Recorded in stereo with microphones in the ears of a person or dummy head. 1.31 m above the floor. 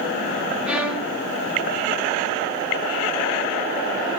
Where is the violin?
5° right (ahead or behind), 3.5 m.